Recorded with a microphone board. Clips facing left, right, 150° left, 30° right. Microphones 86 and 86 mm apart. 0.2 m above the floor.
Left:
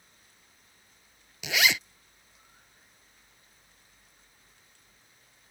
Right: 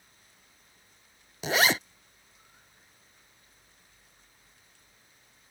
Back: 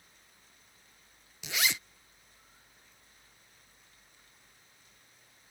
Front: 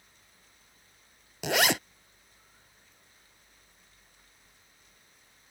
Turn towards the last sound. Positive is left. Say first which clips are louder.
# right 3 dB, front 9 dB
turn(degrees=-40)